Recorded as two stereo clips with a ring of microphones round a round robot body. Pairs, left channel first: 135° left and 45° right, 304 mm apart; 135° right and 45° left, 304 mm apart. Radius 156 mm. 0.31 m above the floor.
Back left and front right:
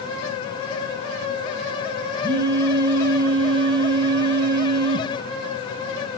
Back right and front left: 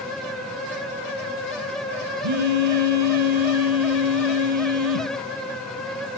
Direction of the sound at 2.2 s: 30° left.